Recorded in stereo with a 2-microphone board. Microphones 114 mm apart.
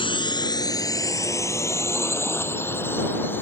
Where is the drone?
50° left (ahead or behind); by 3.4 s 20° left (ahead or behind).